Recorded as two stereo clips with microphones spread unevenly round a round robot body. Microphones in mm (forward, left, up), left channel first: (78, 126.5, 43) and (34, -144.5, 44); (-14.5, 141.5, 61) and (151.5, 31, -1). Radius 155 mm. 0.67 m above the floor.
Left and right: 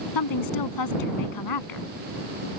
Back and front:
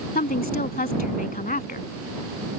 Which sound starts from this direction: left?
A woman speaking, at 0.1 s.